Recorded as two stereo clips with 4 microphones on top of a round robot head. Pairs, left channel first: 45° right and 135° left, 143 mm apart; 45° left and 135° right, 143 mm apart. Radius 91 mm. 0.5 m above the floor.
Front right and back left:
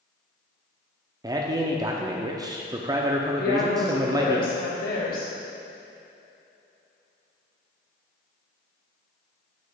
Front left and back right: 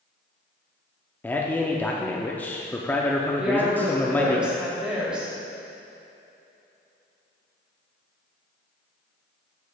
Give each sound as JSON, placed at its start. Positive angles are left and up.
{"t": 1.2, "sound": "a man speaking", "azimuth_deg": 110, "distance_m": 0.7}
{"t": 3.4, "sound": "a woman speaking", "azimuth_deg": -50, "distance_m": 2.0}